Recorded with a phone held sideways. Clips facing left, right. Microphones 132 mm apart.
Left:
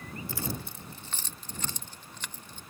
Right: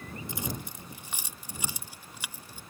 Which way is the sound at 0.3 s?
20° right (ahead or behind).